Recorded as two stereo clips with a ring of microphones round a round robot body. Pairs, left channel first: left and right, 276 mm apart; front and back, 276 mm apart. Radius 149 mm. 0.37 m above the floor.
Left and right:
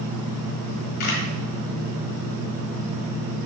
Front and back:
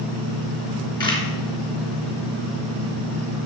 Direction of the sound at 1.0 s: 75° left.